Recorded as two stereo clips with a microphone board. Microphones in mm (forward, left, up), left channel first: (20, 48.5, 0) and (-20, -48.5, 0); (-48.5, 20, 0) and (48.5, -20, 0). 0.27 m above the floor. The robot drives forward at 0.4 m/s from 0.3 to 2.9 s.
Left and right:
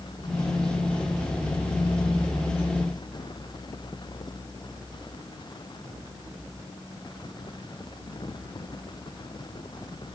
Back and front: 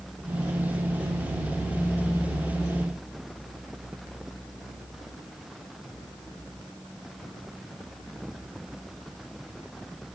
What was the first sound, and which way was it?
Only background noise.